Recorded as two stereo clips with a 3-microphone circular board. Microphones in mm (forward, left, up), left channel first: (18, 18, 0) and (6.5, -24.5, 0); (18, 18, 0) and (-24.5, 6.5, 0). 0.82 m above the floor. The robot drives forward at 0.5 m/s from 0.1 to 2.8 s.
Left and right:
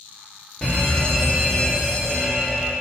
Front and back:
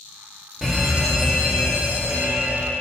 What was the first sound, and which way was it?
A fire alarm, 100° left.